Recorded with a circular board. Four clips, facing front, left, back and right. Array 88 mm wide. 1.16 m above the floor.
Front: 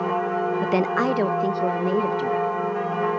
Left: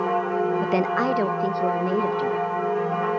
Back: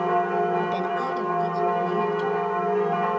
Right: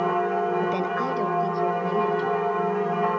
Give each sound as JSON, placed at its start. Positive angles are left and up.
{"t": 0.6, "sound": "a woman speaking", "azimuth_deg": 35, "distance_m": 0.5}